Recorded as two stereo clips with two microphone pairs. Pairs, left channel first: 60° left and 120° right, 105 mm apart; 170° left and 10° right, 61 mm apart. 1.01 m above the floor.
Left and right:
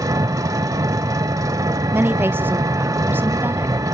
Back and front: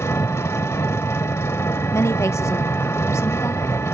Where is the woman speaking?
170° left, 0.8 m.